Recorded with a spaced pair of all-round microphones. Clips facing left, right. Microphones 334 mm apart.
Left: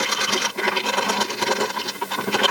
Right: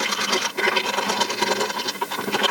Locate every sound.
Only background noise.